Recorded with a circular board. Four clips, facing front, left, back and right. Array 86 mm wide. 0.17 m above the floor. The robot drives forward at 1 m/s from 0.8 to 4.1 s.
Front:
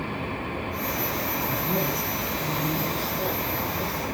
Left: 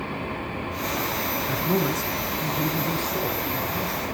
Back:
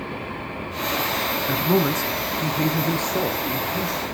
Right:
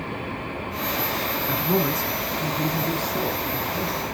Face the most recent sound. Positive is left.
turn(degrees=180)